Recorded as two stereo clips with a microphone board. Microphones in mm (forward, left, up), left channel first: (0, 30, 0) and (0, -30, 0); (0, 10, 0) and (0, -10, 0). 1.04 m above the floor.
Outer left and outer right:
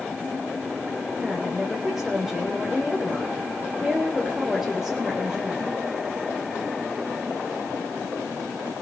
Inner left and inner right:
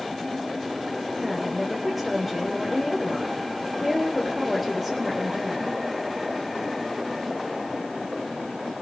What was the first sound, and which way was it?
A woman speaking, centre (ahead or behind).